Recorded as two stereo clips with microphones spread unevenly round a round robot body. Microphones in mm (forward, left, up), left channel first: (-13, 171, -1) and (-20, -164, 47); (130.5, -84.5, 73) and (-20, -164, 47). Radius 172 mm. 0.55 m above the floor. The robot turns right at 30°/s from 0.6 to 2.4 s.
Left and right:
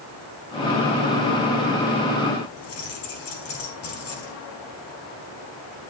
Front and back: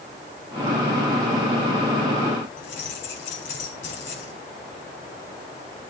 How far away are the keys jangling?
About 4 m.